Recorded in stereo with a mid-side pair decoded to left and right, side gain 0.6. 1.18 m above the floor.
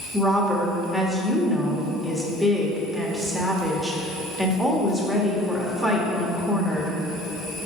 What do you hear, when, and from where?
0.1 s a woman speaking: 5° left, 1.7 m